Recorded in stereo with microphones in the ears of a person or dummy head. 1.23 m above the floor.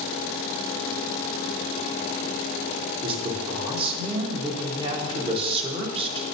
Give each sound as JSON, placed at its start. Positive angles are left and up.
{"t": 3.0, "sound": "a man speaking", "side_deg": -30, "distance_m": 2.0}